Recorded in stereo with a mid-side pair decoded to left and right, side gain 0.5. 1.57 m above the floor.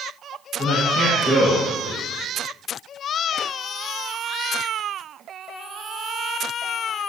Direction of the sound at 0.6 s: 65° left.